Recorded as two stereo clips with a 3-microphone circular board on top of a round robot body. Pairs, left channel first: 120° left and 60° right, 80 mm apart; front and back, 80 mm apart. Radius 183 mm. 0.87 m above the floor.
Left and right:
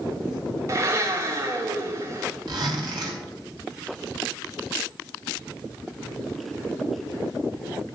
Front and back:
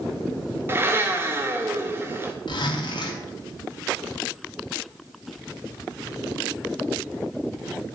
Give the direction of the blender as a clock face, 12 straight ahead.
4 o'clock.